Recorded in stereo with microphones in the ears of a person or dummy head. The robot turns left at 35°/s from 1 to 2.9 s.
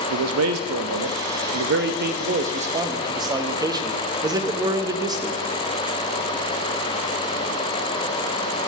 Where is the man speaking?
90° right, 0.6 m; by 5.4 s 160° right, 0.6 m.